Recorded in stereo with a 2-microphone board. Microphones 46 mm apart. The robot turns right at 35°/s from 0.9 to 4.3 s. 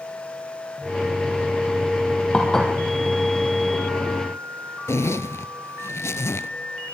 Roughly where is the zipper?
Left.